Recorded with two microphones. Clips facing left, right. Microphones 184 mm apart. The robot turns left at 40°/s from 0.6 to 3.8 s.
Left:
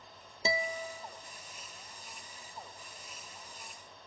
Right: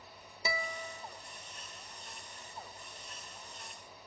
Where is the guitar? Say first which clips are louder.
Left 5 dB; 30° left (ahead or behind), 0.6 m; by 1.1 s 40° left (ahead or behind), 0.6 m.